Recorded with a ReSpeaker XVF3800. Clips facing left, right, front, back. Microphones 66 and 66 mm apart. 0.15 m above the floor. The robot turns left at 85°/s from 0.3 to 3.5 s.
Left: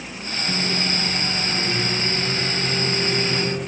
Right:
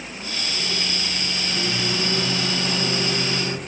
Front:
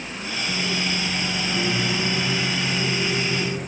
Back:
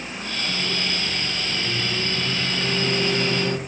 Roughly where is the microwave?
Left.